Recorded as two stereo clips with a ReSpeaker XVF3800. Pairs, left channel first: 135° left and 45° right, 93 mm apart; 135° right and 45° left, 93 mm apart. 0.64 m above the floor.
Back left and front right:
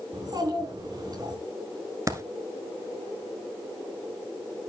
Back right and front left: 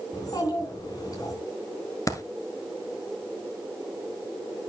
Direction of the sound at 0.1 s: 90° right.